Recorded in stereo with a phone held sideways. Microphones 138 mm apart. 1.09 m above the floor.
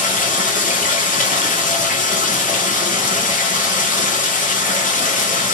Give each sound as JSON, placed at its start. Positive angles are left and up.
{"t": 0.0, "sound": "running water", "side_deg": 80, "distance_m": 0.8}